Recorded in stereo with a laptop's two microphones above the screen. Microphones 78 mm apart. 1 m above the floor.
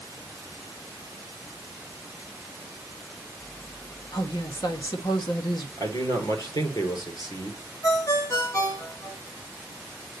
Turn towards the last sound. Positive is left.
turn(degrees=45)  # may be behind; listen again after turning